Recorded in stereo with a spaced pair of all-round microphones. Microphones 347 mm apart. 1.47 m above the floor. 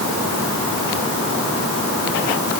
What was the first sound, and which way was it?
Only background noise.